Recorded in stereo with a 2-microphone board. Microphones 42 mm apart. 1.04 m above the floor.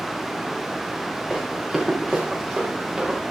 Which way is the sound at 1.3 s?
5° left (ahead or behind).